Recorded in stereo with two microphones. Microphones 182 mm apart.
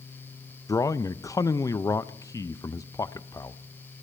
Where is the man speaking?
20° left (ahead or behind), 0.5 m.